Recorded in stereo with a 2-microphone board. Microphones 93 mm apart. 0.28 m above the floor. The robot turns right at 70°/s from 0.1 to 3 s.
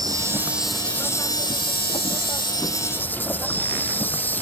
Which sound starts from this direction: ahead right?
An insect, at 0.0 s.